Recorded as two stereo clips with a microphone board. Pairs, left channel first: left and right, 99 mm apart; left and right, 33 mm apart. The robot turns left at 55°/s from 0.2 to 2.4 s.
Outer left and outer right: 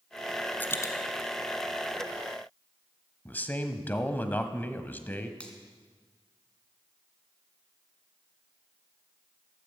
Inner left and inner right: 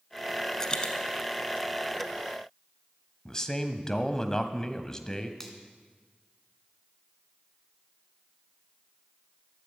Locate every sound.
0.6 s a dropped coin: 20° left (ahead or behind), 1.3 m; by 0.9 s 35° left (ahead or behind), 1.3 m
3.2 s a man speaking: 20° left (ahead or behind), 0.9 m
5.4 s a finger snap: 10° left (ahead or behind), 2.5 m